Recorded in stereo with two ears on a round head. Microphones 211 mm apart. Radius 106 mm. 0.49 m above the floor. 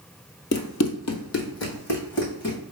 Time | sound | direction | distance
0.5 | running footsteps | 45° left (ahead or behind) | 0.8 m